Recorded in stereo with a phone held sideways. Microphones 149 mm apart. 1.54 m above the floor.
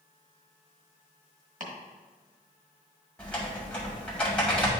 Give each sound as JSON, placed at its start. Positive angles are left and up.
{"t": 1.6, "sound": "chopping", "side_deg": -55, "distance_m": 1.4}
{"t": 3.2, "sound": "typing on a keyboard", "side_deg": 10, "distance_m": 2.0}